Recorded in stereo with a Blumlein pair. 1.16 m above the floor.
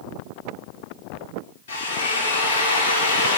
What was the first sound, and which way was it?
A drill, 60° left.